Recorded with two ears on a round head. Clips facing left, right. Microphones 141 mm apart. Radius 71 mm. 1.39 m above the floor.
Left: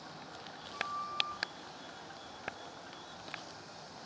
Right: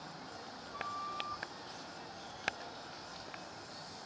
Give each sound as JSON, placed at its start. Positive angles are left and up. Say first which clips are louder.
{"t": 0.7, "sound": "a flute", "louder": "left 2 dB", "side_deg": 0, "distance_m": 1.5}